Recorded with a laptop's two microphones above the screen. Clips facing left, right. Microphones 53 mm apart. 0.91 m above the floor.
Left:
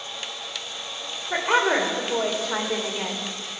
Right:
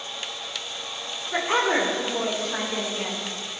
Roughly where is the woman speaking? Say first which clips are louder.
Left 2 dB; left.